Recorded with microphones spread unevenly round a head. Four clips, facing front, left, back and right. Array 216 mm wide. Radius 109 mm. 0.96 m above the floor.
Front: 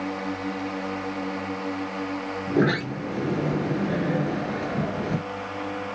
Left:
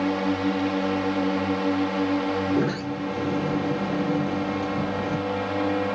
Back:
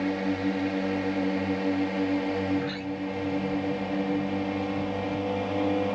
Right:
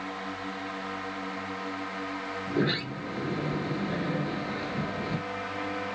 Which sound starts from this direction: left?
A drone, at 0.0 s.